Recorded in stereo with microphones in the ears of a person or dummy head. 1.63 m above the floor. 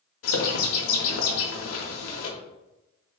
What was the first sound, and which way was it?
A bird, 85° left.